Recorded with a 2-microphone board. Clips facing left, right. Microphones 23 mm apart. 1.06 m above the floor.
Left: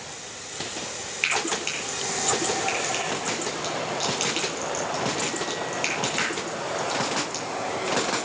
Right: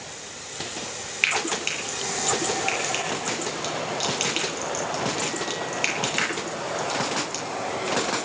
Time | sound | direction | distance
1.2 | frying | 20° right (ahead or behind) | 9 m